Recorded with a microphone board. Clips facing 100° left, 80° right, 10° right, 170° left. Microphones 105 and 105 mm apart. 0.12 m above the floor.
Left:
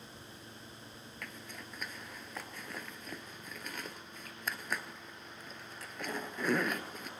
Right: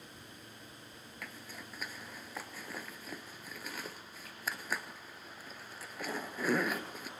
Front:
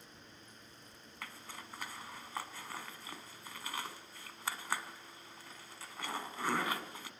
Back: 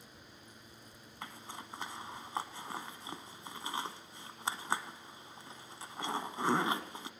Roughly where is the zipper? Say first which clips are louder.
Even, back 3 dB; behind.